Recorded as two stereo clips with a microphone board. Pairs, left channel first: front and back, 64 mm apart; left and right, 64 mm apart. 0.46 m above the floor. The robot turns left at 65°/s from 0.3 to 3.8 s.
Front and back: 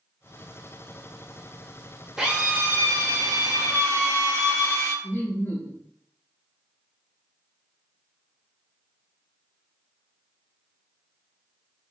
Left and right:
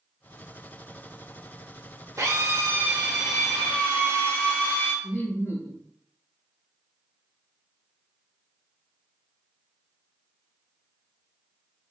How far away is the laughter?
About 1.1 m.